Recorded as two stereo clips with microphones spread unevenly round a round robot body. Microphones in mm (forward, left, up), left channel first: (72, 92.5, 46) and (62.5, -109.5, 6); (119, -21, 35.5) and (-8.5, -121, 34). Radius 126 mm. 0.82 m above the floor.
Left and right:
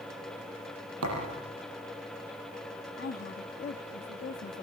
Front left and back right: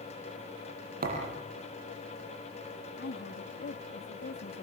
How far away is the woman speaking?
About 1.4 m.